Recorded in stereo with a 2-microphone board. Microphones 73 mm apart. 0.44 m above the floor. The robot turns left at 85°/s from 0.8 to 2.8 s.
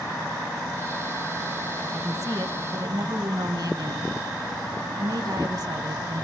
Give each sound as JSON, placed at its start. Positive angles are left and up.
{"t": 1.9, "sound": "a woman speaking", "azimuth_deg": -35, "distance_m": 3.0}